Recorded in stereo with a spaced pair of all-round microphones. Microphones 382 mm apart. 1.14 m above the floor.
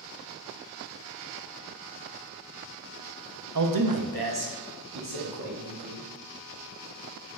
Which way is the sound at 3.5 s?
50° right (ahead or behind).